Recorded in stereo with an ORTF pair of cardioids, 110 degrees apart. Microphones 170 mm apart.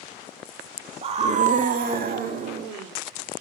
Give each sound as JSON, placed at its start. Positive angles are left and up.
{"t": 1.0, "sound": "a scream", "azimuth_deg": -35, "distance_m": 2.0}